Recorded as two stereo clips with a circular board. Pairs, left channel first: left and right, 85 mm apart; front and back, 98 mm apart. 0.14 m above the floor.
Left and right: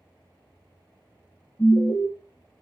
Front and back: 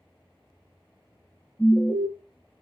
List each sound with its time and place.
1.6 s an alarm: 65° left, 1.7 m